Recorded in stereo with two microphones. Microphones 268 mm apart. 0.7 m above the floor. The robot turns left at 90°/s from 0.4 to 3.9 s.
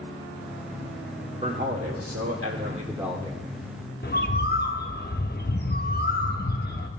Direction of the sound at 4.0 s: 40° left (ahead or behind).